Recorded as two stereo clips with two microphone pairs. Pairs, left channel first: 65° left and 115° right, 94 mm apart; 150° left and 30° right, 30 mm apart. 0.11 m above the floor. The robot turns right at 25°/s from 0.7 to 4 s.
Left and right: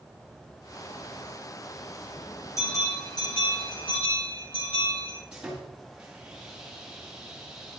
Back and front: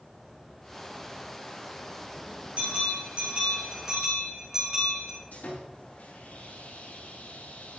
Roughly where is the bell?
Ahead.